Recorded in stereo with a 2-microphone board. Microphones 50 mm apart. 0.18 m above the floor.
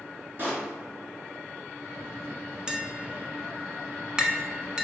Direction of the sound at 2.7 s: 15° right (ahead or behind).